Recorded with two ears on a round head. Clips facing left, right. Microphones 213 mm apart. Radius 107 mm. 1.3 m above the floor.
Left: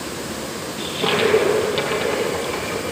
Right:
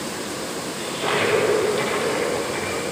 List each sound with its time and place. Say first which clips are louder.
0.8 s a toilet flushing: left 4 dB; 65° left (ahead or behind), 6 m